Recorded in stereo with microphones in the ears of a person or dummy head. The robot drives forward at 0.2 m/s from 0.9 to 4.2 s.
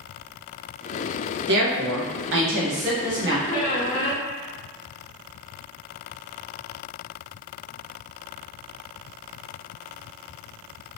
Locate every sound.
1.5 s a woman speaking: 50° right (ahead or behind), 0.8 m; by 3.4 s 45° right (ahead or behind), 0.9 m
3.5 s a squeak: 40° left (ahead or behind), 1.1 m; by 4.2 s 35° left (ahead or behind), 1.2 m